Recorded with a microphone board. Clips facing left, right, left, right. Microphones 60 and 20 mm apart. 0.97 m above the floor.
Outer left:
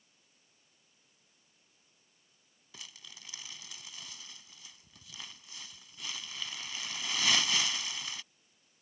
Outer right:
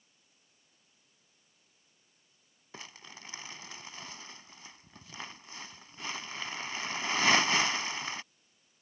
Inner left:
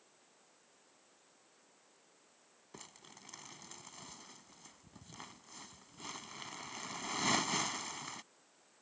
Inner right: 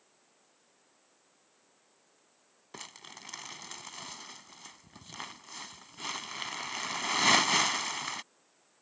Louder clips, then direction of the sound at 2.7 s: Outer right 4 dB, inner right 9 dB; 35° right (ahead or behind).